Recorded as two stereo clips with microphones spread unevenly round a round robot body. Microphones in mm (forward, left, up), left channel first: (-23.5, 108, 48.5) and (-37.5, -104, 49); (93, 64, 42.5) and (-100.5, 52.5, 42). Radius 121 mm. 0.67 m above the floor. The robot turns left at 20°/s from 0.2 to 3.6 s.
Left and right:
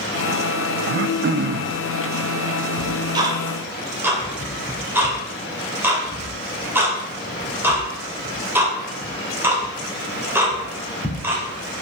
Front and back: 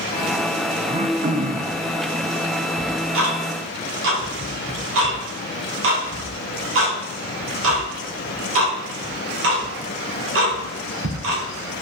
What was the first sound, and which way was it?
Throat clearing, 120° right.